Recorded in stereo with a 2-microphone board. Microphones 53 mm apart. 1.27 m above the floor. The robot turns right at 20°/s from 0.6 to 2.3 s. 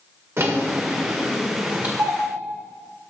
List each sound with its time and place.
0.4 s a drawer: 55° right (ahead or behind), 1.9 m; by 1.9 s 30° right (ahead or behind), 1.9 m
2.0 s a doorbell: 60° right (ahead or behind), 1.9 m; by 2.2 s 55° right (ahead or behind), 1.9 m